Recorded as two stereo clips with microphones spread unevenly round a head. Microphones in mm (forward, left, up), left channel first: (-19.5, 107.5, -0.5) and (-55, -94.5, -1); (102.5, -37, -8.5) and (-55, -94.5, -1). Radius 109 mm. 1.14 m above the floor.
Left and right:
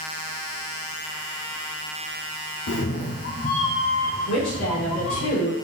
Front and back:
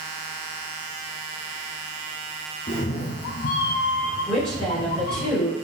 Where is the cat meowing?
60° left, 0.6 m; by 5.3 s 5° right, 1.6 m.